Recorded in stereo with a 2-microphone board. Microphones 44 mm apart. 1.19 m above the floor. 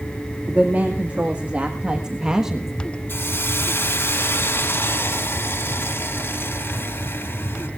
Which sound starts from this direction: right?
A woman speaking, at 0.5 s.